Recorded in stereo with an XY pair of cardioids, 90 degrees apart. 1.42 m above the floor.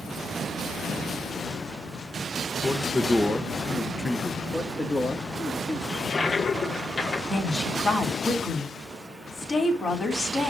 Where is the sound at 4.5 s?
30° left, 2 m.